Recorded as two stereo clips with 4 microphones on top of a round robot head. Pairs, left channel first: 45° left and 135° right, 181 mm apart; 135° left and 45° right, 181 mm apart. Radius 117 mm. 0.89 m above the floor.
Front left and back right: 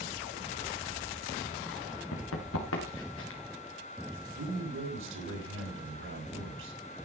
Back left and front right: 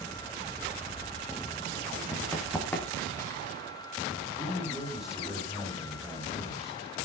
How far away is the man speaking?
About 5 m.